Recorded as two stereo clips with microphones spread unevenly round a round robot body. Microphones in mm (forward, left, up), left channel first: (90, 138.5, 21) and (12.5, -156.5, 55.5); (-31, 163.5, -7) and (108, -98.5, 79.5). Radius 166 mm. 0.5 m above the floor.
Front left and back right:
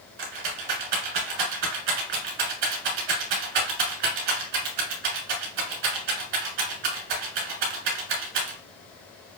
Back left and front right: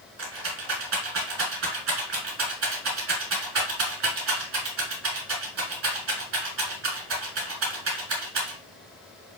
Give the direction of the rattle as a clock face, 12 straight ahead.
4 o'clock.